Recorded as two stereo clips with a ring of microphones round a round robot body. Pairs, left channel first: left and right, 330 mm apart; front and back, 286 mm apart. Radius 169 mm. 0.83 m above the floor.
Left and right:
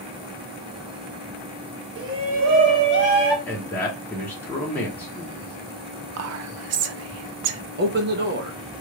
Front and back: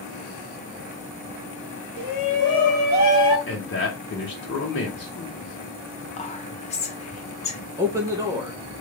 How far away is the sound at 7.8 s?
About 0.7 m.